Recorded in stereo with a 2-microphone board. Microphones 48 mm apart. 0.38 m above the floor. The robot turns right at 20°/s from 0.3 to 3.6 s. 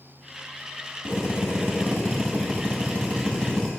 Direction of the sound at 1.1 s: 110° left.